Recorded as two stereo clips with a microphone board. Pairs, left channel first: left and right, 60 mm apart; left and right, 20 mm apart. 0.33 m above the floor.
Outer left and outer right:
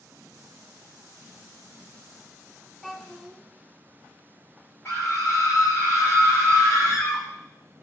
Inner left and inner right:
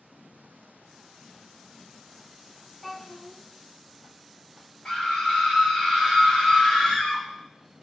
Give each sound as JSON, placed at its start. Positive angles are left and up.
{"t": 2.8, "sound": "a child speaking", "side_deg": 10, "distance_m": 1.3}
{"t": 4.8, "sound": "a scream", "side_deg": 45, "distance_m": 2.0}